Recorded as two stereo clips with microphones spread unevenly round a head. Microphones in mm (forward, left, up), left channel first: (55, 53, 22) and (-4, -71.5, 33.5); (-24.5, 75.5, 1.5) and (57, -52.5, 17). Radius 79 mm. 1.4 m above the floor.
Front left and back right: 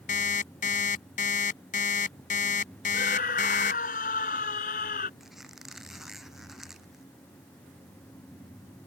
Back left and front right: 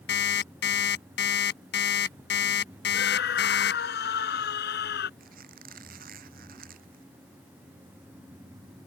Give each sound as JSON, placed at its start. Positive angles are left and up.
{"t": 0.1, "sound": "an alarm clock", "azimuth_deg": 110}
{"t": 2.9, "sound": "a scream", "azimuth_deg": 105}
{"t": 5.2, "sound": "a squeak", "azimuth_deg": -30}